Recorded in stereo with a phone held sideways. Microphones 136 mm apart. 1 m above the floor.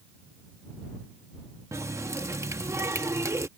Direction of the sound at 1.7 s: 20° right (ahead or behind).